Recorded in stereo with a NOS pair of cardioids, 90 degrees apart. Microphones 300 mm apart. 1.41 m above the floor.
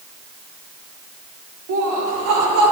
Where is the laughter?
70° right, 3.5 m; by 2.7 s 75° right, 4 m.